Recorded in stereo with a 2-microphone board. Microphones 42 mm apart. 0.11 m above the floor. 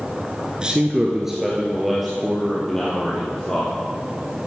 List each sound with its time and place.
0.6 s a man speaking: 20° right (ahead or behind), 1.2 m; by 3.8 s 15° left (ahead or behind), 3 m